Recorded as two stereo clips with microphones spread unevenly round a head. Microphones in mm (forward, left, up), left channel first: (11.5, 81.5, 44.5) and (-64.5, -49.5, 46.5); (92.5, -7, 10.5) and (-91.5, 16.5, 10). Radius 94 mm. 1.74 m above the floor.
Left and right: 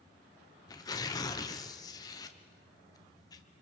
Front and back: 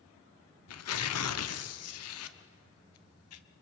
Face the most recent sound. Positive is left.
turn(degrees=-10)